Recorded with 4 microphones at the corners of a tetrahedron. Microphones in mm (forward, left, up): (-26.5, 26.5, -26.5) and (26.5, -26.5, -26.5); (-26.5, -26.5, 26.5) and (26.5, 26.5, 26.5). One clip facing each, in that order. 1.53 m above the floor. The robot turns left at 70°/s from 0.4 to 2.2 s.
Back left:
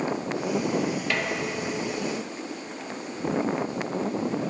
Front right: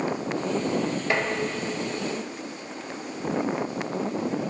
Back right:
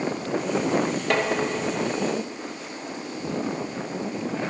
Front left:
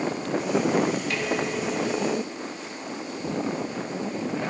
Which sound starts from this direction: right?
Dishes clattering, at 1.1 s.